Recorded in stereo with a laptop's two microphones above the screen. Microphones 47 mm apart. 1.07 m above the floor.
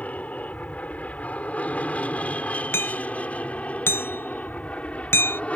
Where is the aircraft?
35° left (ahead or behind); by 5.6 s 30° left (ahead or behind).